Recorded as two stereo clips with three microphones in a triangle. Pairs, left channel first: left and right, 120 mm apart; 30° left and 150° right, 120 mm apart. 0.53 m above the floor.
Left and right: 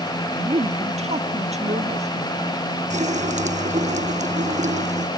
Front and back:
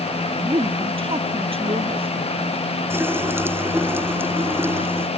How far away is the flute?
I don't hear a flute.